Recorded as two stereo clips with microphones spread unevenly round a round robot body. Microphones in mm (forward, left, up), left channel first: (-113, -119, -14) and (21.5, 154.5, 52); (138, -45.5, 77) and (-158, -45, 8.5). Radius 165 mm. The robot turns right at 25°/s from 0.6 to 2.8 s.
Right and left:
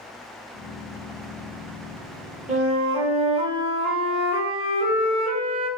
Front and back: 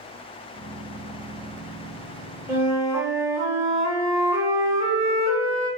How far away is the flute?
About 0.7 m.